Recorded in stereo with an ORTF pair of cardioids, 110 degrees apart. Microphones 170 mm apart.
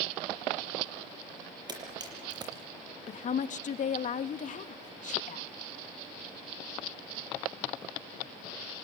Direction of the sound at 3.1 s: 50° left.